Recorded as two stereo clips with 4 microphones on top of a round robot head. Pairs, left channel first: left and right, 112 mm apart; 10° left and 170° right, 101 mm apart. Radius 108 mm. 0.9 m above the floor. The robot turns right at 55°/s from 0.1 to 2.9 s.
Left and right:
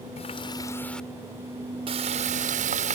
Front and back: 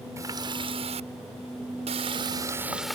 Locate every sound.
0.2 s a running tap: 130° left; by 3.0 s 80° right